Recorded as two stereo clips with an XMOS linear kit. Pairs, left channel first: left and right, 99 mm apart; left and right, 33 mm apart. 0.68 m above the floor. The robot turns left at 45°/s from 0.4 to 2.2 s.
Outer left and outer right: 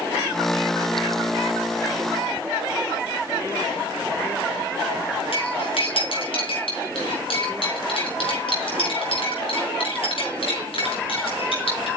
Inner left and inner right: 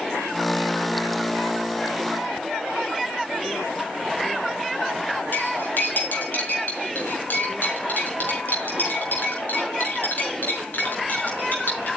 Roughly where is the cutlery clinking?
Left.